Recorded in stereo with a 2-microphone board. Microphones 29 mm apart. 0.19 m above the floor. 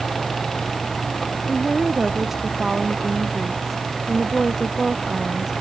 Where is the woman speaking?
15° right (ahead or behind).